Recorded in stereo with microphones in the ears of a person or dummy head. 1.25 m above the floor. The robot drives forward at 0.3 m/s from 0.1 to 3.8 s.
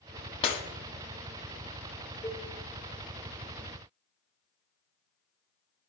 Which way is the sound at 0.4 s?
30° left (ahead or behind).